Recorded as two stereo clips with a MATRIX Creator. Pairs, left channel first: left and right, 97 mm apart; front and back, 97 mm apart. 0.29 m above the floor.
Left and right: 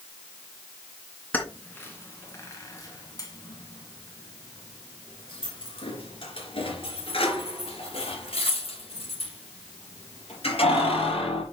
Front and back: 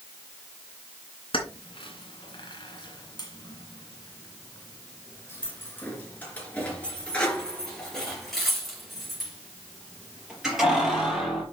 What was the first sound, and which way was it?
Keys jangling, 20° left.